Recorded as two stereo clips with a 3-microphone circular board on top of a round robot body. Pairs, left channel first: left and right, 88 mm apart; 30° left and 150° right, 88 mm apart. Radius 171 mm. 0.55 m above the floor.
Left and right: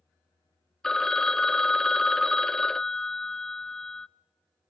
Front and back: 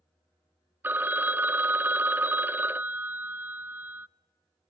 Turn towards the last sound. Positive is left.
turn(degrees=170)